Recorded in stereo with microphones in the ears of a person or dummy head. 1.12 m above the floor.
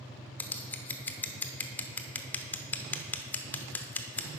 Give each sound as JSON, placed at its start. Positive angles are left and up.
{"t": 0.4, "sound": "scissors", "side_deg": 15, "distance_m": 0.5}